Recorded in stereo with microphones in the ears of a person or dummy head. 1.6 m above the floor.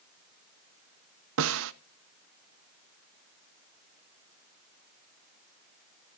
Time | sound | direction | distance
1.4 | a snare drum | 70° right (ahead or behind) | 0.6 m